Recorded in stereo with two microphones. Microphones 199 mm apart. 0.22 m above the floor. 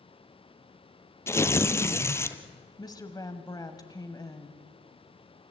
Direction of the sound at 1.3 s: 15° left (ahead or behind).